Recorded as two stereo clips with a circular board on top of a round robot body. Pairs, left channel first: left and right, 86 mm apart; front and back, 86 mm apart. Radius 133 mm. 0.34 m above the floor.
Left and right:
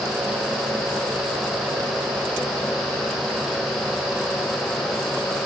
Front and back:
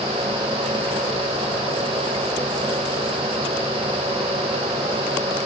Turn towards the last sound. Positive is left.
No sound to turn to.